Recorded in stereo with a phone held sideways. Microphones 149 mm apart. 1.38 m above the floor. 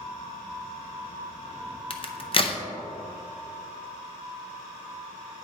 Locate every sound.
1.9 s a crack: 40° left (ahead or behind), 0.6 m